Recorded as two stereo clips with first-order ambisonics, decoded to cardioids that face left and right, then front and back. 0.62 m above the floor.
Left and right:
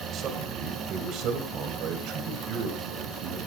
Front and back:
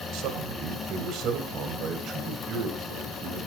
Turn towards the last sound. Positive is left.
turn(degrees=-110)